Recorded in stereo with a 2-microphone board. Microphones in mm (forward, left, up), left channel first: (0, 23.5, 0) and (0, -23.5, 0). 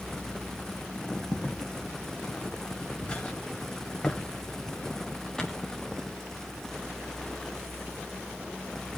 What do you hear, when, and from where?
1.3 s footsteps: 40° left (ahead or behind), 2.5 m; by 5.7 s 15° left (ahead or behind), 5.5 m